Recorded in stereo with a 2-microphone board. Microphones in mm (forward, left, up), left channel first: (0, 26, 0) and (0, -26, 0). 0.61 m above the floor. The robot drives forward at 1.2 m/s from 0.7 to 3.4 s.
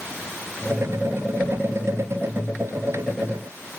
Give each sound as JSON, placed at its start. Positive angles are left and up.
{"t": 1.4, "sound": "keys jangling", "side_deg": 70, "distance_m": 1.7}